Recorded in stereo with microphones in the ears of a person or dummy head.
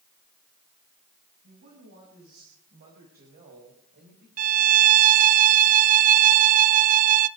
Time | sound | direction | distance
1.4 | a woman speaking | 50° right (ahead or behind) | 7 m
4.4 | a violin | 45° right (ahead or behind) | 0.6 m